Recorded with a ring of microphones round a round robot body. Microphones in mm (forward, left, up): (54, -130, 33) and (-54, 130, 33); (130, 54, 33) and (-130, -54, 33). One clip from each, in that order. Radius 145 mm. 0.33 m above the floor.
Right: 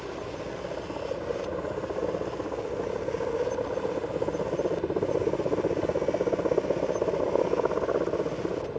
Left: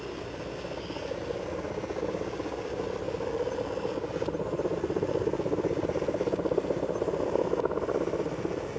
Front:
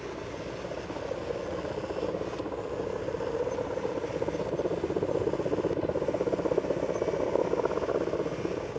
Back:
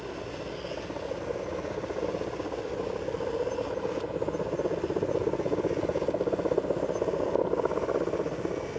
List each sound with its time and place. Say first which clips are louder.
0.0 s a helicopter: right 2 dB, even; 70° right